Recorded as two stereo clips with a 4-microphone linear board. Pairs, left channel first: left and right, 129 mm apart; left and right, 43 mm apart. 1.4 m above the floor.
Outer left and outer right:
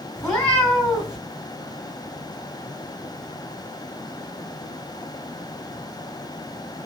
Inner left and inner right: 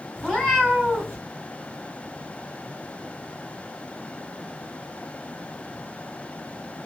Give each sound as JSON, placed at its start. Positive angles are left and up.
{"t": 0.2, "sound": "a cat meowing", "side_deg": 5, "distance_m": 2.5}